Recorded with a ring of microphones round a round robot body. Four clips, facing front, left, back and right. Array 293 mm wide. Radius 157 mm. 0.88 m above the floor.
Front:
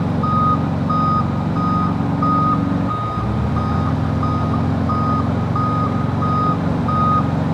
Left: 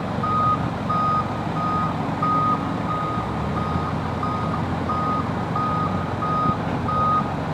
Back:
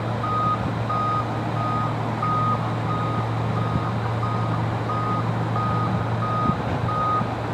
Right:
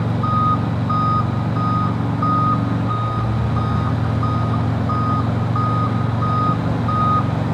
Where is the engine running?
15° right.